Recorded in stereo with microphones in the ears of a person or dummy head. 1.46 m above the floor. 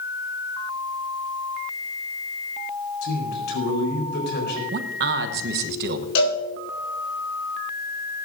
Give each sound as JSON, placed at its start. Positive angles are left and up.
{"t": 3.0, "sound": "a man speaking", "side_deg": 65, "distance_m": 4.0}
{"t": 4.7, "sound": "a man speaking", "side_deg": -60, "distance_m": 0.8}
{"t": 6.2, "sound": "a cowbell", "side_deg": 65, "distance_m": 4.5}